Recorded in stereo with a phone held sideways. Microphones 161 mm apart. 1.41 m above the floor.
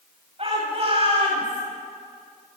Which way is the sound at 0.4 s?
40° right (ahead or behind).